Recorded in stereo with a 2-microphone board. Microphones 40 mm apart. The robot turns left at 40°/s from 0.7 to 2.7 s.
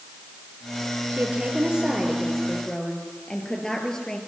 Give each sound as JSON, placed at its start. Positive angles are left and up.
{"t": 1.1, "sound": "a woman speaking", "azimuth_deg": -135, "distance_m": 4.0}